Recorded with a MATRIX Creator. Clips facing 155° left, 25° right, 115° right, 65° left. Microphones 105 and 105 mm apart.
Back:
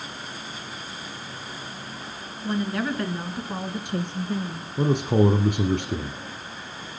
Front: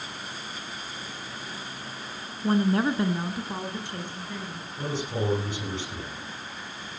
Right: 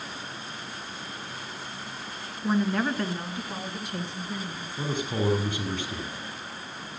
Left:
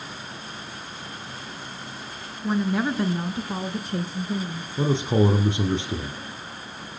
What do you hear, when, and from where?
2.4 s a woman speaking: 30° right, 2.0 m; by 4.7 s 110° left, 3 m
4.8 s a man speaking: 125° left, 3 m